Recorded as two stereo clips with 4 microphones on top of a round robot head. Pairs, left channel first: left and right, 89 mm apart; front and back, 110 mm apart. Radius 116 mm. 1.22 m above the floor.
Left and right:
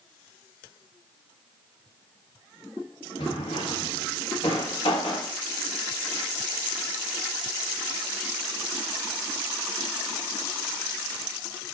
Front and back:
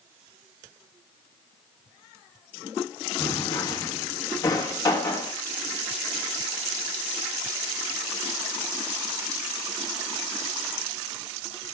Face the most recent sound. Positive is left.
turn(degrees=55)